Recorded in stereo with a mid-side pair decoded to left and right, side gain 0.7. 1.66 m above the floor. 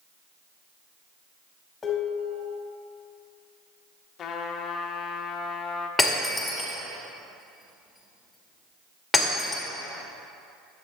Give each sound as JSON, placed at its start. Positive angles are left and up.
{"t": 1.8, "sound": "dishes clattering", "azimuth_deg": 20, "distance_m": 2.5}
{"t": 4.2, "sound": "a trumpet", "azimuth_deg": 40, "distance_m": 1.1}
{"t": 6.0, "sound": "breaking glass", "azimuth_deg": 10, "distance_m": 2.5}